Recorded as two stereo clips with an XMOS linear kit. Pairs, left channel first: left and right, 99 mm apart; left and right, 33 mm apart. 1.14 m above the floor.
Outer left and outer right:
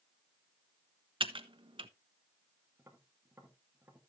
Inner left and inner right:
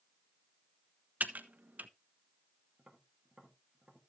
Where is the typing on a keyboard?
60° right (ahead or behind), 1.0 m.